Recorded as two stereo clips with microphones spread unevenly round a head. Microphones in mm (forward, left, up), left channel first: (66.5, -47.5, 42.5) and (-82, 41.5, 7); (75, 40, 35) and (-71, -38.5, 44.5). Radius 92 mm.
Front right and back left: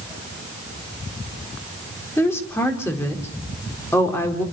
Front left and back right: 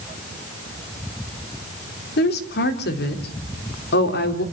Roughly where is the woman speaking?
Ahead left.